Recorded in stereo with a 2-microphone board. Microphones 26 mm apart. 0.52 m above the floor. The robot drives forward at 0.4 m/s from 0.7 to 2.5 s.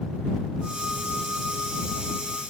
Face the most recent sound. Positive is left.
No sound to turn to.